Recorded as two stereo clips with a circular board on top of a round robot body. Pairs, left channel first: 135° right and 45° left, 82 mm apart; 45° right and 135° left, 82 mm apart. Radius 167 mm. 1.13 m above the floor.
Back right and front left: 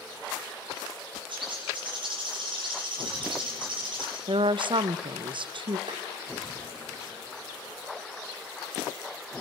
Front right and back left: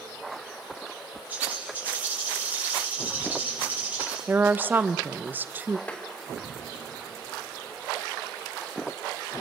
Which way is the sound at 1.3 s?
60° left.